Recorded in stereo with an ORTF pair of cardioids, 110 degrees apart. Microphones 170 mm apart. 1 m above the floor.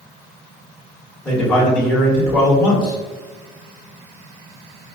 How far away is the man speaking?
About 1.9 m.